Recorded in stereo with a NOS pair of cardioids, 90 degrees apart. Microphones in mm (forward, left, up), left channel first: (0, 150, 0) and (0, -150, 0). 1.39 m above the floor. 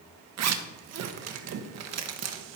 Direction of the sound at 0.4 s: 60° right.